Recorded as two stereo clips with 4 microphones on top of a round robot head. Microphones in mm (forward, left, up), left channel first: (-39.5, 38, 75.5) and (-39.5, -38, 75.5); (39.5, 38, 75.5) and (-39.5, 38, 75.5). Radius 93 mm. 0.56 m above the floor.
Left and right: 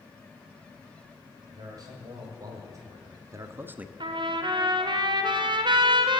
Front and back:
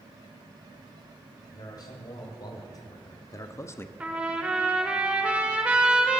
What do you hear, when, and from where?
1.5 s a man speaking: 45° right, 3 m; by 3.9 s 30° right, 0.6 m
4.0 s a trumpet: 105° right, 1.4 m